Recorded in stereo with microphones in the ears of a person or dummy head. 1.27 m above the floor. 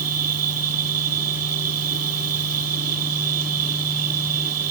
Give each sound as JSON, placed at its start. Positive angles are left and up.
{"t": 0.0, "sound": "an insect", "side_deg": -85}